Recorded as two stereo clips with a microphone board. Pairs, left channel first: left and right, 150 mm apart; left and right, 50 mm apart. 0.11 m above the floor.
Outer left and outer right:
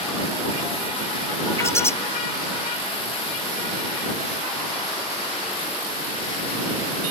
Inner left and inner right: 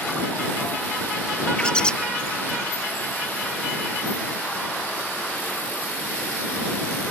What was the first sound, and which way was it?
A bird, 15° left (ahead or behind).